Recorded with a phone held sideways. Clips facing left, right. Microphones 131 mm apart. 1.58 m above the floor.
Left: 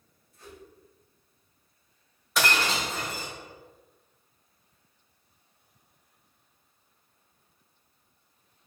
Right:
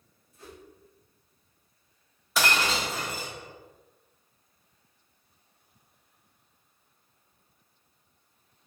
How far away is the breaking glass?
About 1.1 m.